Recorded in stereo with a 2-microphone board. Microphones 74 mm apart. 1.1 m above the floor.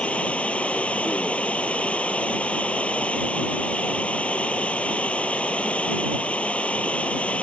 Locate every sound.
0.0 s running water: 20° left (ahead or behind)